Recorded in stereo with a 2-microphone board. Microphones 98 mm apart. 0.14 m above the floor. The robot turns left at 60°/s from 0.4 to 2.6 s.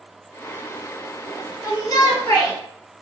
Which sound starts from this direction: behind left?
A shout, at 1.6 s.